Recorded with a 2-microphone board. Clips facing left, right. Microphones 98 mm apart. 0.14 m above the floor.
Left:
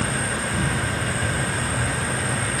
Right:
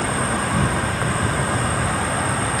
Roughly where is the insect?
Right.